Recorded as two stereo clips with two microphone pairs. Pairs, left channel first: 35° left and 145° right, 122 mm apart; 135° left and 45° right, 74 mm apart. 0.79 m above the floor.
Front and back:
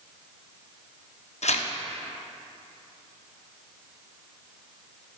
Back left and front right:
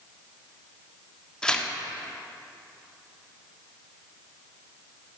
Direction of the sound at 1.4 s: 55° left.